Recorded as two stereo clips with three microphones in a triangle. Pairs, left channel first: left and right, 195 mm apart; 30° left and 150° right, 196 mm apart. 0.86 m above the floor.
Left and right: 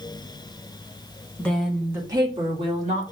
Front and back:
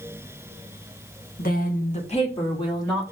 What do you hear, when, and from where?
1.4 s a woman speaking: 15° left, 1.1 m; by 3.0 s 40° right, 1.9 m